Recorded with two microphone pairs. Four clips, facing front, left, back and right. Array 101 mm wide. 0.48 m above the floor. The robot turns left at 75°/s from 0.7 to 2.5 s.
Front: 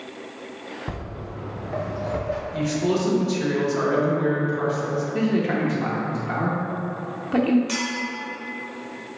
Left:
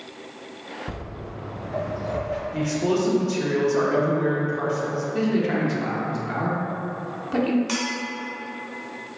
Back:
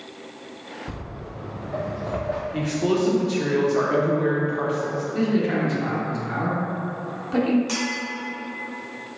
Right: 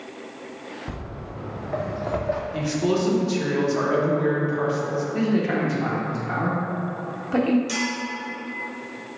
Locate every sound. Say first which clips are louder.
0.9 s footsteps: even, front 2 dB; 10° right, 1.6 m; by 2.4 s 130° right, 0.9 m
2.5 s a man speaking: left 2 dB, even; 155° left, 0.7 m
5.1 s a man speaking: even, back 1 dB; straight ahead, 0.7 m
7.7 s a clink: even, back 1 dB; 110° left, 1.8 m